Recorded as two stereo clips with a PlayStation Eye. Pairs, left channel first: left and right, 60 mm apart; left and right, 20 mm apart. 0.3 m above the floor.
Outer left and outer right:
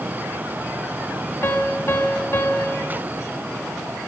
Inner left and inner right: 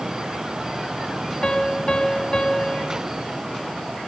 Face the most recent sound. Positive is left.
turn(degrees=60)  # may be behind; listen again after turning